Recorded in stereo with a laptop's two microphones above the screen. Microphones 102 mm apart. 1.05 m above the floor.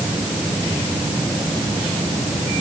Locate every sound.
Only background noise.